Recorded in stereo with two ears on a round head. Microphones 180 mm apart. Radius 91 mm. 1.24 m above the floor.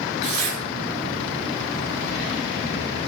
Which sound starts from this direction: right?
Tearing paper, at 0.2 s.